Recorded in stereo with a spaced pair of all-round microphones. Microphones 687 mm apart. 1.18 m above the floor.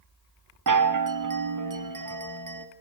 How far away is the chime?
About 0.6 m.